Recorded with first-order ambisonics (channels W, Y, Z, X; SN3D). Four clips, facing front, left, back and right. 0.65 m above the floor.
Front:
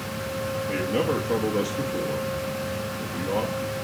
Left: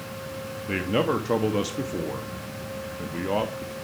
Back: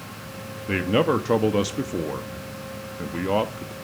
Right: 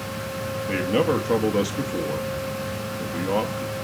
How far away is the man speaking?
About 0.6 m.